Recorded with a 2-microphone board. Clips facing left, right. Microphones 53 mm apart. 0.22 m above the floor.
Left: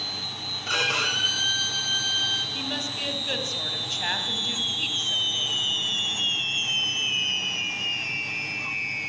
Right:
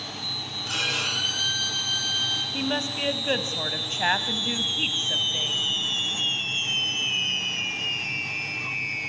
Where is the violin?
35° left (ahead or behind), 2.5 m.